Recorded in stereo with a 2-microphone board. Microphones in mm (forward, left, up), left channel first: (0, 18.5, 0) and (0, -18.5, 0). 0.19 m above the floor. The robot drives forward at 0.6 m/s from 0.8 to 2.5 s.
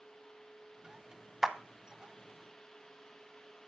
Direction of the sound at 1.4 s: 10° right (ahead or behind).